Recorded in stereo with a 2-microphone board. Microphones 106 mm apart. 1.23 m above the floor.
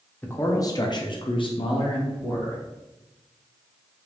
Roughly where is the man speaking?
Left.